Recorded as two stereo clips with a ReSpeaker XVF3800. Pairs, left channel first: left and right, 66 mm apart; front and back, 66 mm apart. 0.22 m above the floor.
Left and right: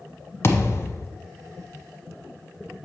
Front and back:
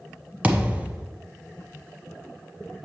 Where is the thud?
120° left, 0.7 m.